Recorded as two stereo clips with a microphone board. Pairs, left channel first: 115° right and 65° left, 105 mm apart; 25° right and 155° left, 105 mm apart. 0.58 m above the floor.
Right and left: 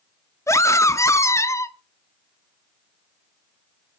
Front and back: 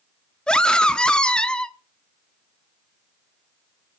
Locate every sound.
0.5 s a scream: 95° right, 0.7 m